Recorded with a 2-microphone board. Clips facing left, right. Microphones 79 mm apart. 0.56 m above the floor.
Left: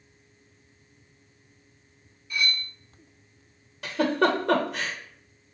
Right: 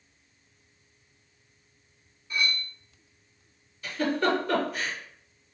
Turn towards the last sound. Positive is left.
turn(degrees=80)